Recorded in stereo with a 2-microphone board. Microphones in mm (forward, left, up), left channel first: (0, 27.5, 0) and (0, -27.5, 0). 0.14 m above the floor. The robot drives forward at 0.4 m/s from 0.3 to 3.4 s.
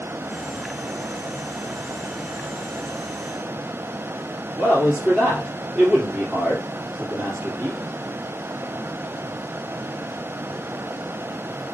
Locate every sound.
4.6 s a man speaking: 15° right (ahead or behind), 3 m